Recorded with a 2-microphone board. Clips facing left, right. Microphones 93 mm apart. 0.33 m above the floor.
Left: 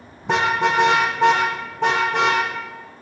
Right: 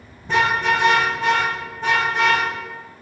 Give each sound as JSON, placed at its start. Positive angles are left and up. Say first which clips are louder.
{"t": 0.2, "sound": "a car horn", "louder": "even", "side_deg": 80, "distance_m": 9.0}